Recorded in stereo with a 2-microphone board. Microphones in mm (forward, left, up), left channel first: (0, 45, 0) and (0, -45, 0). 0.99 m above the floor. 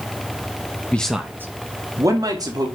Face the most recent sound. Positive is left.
turn(degrees=-50)  # may be behind; listen again after turning